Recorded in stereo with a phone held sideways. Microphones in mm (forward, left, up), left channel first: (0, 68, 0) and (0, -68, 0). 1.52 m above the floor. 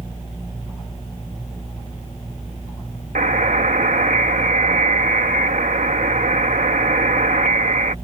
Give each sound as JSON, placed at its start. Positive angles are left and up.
{"t": 3.1, "sound": "a buzzer", "side_deg": -80}